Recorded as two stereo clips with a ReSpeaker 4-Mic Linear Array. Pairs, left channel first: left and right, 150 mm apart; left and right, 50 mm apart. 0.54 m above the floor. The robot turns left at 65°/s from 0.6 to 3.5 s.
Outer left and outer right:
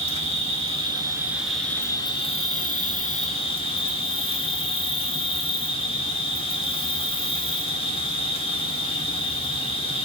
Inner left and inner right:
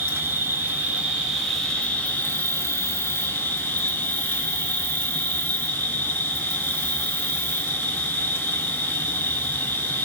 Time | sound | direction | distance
0.0 | an insect | 120° right | 0.7 m